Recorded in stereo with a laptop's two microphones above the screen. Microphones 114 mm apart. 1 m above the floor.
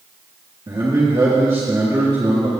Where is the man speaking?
45° right (ahead or behind), 2 m.